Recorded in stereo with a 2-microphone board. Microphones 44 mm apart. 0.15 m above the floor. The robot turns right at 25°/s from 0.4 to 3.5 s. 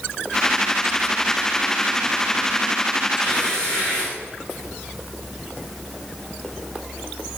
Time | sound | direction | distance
3.2 | tearing paper | 25° left (ahead or behind) | 6.5 m